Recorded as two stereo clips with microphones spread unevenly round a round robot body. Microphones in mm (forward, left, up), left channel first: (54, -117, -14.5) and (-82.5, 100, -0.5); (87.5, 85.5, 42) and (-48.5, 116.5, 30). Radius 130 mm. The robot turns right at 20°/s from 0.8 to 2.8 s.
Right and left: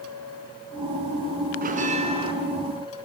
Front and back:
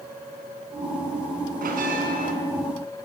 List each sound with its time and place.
1.6 s a bell: straight behind, 3.5 m; by 2.3 s 165° right, 3.5 m